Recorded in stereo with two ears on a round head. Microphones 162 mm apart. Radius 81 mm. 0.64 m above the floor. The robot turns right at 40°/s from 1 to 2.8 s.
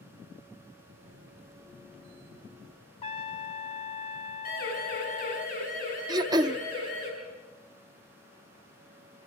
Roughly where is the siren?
Left.